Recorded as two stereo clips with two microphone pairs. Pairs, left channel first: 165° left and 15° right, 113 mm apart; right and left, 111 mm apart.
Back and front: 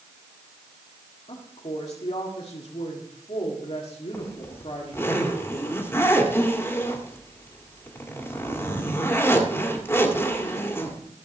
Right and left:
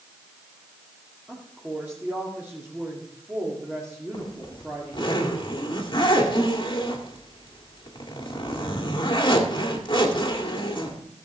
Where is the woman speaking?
165° left, 2 m.